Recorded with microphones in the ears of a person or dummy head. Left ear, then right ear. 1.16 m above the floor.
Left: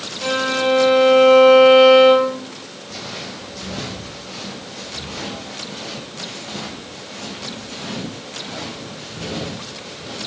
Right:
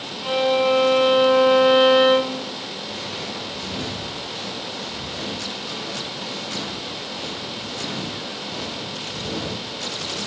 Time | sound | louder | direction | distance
0.2 | a violin | even | 55° left (ahead or behind) | 4.5 m
2.9 | footsteps | left 3 dB | 50° left (ahead or behind) | 4.5 m